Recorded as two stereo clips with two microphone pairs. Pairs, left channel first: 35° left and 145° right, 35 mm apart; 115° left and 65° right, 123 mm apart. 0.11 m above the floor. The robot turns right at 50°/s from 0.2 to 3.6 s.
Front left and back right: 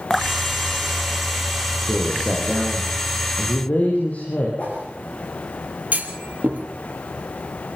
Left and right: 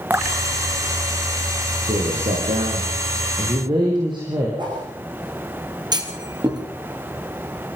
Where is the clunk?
110° right, 3 m.